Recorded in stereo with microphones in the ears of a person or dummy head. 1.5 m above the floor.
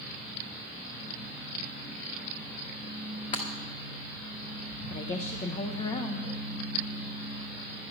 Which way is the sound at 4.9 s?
30° left (ahead or behind).